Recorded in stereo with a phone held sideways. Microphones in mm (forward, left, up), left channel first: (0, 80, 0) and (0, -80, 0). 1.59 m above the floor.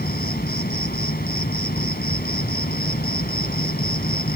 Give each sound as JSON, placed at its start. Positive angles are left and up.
{"t": 0.0, "sound": "an insect", "side_deg": 75}